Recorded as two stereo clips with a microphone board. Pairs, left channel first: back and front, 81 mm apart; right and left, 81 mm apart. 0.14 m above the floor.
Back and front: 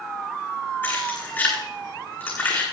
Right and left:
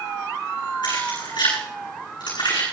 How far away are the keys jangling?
About 8 m.